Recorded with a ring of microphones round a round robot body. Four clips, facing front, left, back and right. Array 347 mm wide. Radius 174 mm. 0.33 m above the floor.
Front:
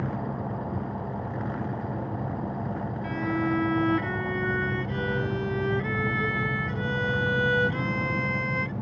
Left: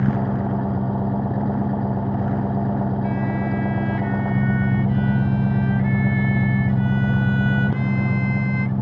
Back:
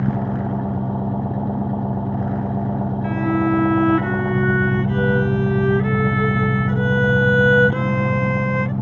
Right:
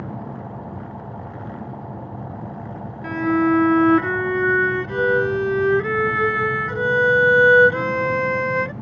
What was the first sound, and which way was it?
An engine running, 130° left.